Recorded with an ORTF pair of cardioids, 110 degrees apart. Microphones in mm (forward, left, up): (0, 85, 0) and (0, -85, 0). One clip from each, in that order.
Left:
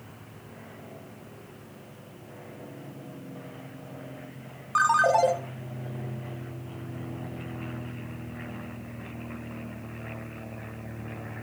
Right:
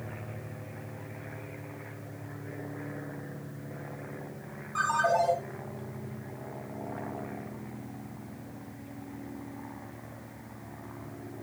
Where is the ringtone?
55° left, 0.5 m.